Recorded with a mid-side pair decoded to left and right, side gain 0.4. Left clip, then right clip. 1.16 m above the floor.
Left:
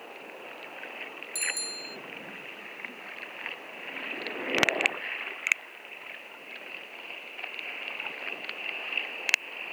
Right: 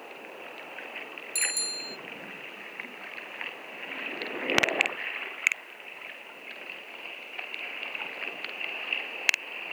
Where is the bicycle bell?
25° right.